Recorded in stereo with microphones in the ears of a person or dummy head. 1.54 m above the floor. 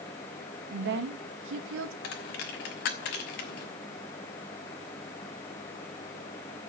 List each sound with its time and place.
0.7 s a woman speaking: 50° right (ahead or behind), 2.5 m; by 1.9 s 70° right (ahead or behind), 2 m
2.0 s a dropped coin: 45° left (ahead or behind), 1.4 m